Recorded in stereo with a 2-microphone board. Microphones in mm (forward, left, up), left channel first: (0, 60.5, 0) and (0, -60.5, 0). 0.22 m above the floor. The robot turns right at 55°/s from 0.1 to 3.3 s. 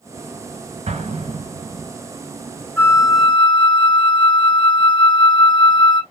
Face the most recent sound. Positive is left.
turn(degrees=40)  # may be behind; listen again after turning